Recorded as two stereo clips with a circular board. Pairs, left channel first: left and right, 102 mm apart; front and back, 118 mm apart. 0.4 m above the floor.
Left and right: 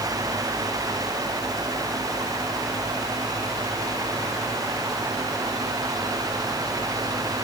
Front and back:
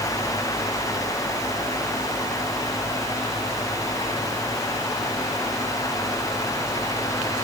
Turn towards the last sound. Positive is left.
No sound to turn to.